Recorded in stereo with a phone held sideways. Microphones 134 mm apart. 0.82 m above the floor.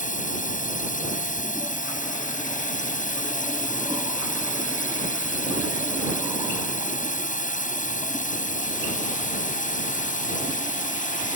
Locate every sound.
0.0 s a drone: 80° left